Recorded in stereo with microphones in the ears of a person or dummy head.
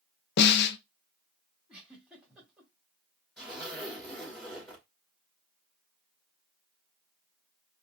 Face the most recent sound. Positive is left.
turn(degrees=0)  # may be behind; listen again after turning